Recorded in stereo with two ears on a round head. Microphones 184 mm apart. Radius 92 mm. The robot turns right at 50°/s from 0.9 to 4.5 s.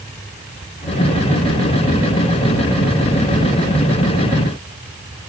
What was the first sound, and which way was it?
Only background noise.